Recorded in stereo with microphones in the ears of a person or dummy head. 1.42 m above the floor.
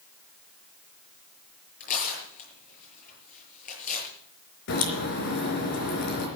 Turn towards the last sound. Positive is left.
turn(degrees=60)  # may be behind; listen again after turning